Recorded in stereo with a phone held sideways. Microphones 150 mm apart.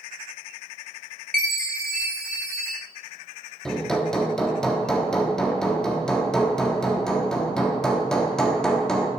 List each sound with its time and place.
1.3 s a chime: 60° right (ahead or behind), 3 m
3.6 s hammering: 5° left (ahead or behind), 1.2 m